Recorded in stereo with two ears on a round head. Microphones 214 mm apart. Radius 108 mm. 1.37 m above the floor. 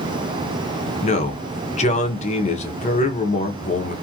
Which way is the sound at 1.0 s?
30° left (ahead or behind).